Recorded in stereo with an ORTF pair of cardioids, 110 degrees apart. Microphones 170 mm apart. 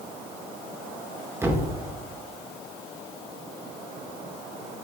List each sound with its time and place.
1.4 s a thud: 15° right, 1.5 m